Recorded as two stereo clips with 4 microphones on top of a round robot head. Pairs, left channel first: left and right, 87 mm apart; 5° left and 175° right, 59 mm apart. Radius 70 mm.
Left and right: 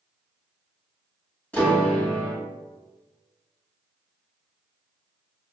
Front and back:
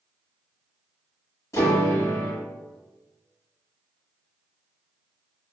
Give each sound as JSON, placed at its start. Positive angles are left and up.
{"t": 1.5, "sound": "a piano", "azimuth_deg": 20, "distance_m": 1.5}